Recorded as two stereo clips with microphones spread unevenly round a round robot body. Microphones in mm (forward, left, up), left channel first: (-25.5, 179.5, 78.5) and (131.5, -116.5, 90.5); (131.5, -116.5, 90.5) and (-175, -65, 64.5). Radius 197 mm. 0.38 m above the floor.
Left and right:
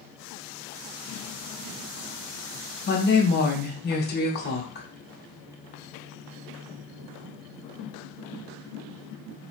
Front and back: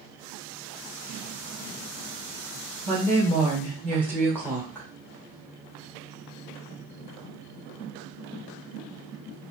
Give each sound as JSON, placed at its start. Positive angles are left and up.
{"t": 2.9, "sound": "a woman speaking", "azimuth_deg": 75, "distance_m": 1.3}